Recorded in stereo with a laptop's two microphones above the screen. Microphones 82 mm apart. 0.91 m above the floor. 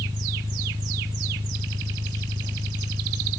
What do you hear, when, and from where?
0.0 s an engine running: 85° right